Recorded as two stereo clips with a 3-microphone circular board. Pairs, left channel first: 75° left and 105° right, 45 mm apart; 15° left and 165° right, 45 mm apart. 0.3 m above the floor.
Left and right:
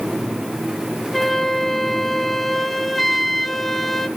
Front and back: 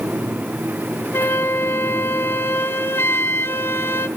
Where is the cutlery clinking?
I don't hear cutlery clinking.